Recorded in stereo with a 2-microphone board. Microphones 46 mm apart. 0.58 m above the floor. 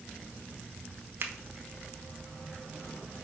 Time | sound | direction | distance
1.2 | a finger snap | 55° right (ahead or behind) | 1.0 m